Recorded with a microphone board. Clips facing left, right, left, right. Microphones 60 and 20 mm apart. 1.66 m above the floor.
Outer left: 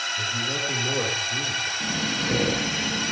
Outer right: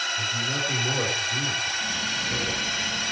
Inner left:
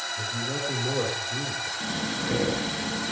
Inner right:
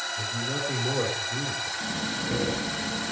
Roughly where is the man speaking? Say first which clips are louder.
Even, even; centre.